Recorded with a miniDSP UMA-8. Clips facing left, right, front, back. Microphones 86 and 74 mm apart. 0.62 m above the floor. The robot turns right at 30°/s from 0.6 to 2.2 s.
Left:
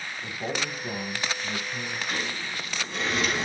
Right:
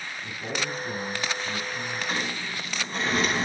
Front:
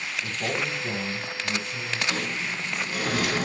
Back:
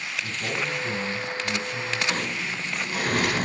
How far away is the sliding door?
About 9 m.